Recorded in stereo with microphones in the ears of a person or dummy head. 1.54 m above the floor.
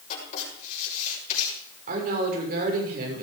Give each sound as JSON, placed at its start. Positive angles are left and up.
{"t": 0.1, "sound": "writing", "side_deg": 40, "distance_m": 7.0}
{"t": 1.9, "sound": "a woman speaking", "side_deg": -60, "distance_m": 6.0}